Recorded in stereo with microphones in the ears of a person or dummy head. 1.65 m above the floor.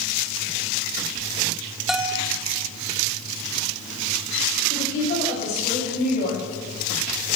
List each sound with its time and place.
1.9 s a bell: centre (ahead or behind), 1.2 m
4.7 s a woman speaking: 50° left (ahead or behind), 8 m